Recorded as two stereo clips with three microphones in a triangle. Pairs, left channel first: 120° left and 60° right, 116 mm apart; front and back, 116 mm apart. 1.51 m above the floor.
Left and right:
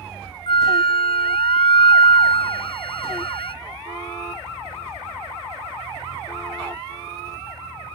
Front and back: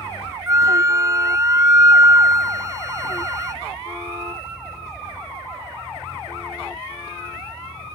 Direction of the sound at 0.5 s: 125° left.